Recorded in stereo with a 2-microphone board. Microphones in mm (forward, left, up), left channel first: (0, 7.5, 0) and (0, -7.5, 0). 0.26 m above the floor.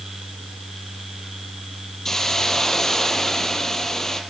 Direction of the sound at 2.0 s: 30° left (ahead or behind).